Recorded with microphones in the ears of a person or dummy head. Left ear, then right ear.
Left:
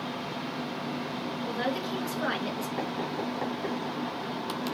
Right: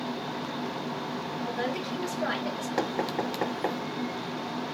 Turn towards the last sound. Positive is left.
turn(degrees=-70)  # may be behind; listen again after turning